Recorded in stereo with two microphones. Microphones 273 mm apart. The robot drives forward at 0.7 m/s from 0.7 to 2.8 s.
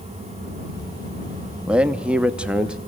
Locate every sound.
1.7 s a man speaking: 5° right (ahead or behind), 0.7 m